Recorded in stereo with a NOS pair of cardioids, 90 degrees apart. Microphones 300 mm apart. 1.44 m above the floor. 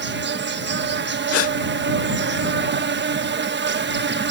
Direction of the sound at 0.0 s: 40° right.